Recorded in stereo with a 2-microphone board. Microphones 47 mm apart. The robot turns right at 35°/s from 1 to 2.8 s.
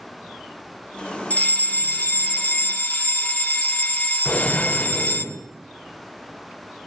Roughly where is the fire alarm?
Ahead left.